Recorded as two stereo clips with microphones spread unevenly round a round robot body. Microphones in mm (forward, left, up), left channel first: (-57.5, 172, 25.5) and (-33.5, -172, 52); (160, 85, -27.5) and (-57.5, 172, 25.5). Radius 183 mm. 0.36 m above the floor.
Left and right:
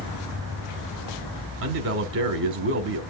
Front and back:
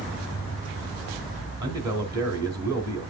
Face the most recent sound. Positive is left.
turn(degrees=-115)